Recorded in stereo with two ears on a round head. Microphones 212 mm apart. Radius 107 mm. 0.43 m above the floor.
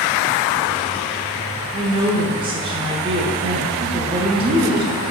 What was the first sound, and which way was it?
A woman speaking, 20° right (ahead or behind).